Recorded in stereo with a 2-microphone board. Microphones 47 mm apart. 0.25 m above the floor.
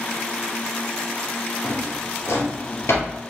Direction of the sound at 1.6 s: 70° left (ahead or behind).